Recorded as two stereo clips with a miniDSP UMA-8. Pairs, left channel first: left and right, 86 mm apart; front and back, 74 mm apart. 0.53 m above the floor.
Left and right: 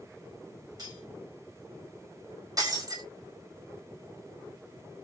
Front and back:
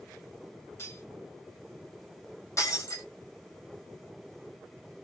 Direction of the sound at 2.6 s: 45° right.